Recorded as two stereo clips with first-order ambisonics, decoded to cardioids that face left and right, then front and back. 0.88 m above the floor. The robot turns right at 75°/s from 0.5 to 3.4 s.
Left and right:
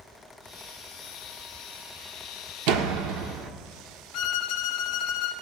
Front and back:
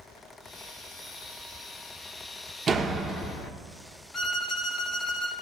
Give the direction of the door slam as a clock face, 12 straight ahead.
4 o'clock.